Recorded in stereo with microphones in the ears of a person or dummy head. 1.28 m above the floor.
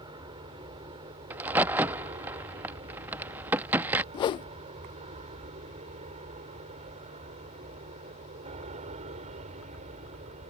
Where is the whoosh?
30° left (ahead or behind).